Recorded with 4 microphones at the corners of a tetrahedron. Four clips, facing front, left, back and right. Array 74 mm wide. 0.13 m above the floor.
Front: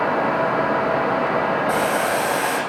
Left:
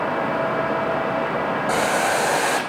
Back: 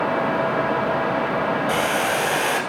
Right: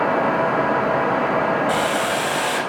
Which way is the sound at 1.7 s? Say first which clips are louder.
Even, front 1 dB; 55° left.